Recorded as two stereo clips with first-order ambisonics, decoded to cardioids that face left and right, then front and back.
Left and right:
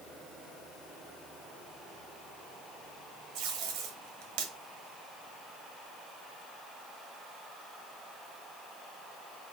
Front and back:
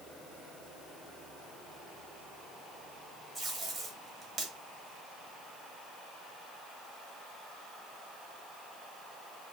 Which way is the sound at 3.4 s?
110° right.